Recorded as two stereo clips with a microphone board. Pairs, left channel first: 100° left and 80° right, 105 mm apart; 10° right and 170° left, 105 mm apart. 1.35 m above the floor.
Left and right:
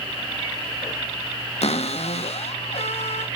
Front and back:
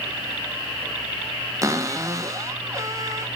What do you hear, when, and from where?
1.6 s a cupboard door: 110° left, 1.6 m